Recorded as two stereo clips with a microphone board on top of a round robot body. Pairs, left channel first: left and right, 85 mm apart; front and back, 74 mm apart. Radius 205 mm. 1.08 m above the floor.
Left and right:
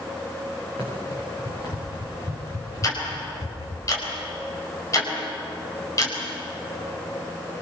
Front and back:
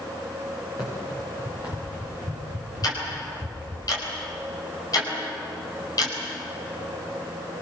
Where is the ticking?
40° left, 5 m.